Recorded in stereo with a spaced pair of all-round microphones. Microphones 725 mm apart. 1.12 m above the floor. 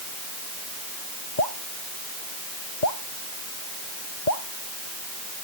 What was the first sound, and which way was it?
Dripping, 85° left.